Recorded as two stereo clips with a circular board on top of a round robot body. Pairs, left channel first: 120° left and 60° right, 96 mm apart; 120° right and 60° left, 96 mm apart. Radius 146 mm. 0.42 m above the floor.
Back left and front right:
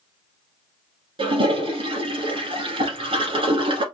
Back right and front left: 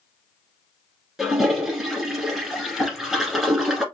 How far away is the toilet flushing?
About 1.3 m.